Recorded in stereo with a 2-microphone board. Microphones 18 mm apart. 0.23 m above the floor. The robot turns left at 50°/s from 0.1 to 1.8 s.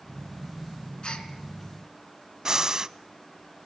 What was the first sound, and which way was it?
A gasp, 60° left (ahead or behind).